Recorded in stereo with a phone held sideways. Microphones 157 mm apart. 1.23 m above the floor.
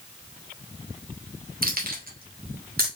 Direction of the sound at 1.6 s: 65° right (ahead or behind).